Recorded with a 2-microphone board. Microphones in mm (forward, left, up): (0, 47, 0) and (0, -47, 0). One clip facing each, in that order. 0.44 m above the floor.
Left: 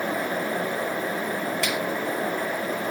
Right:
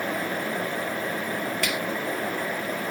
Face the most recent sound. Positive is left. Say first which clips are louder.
# left 1 dB
turn(degrees=20)  # may be behind; listen again after turning